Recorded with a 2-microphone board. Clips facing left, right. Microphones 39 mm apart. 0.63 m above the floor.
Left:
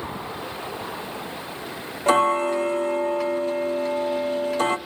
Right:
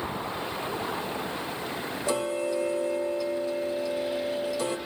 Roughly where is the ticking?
Left.